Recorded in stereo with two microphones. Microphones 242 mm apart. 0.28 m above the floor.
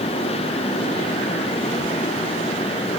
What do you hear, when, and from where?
Only background noise.